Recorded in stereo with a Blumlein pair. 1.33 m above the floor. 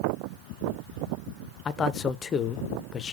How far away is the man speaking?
About 0.5 m.